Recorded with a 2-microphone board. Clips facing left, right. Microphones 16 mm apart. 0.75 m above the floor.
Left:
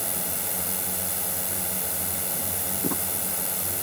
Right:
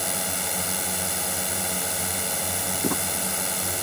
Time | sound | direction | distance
0.0 | a drone | 30° right (ahead or behind) | ?
2.8 | crumpling | 15° right (ahead or behind) | ?